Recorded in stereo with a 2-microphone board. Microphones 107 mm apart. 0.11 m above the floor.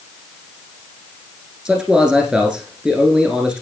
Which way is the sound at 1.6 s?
10° right (ahead or behind).